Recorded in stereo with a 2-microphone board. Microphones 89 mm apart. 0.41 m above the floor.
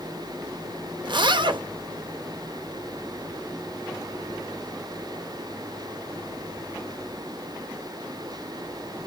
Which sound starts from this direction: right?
A zipper, at 1.0 s.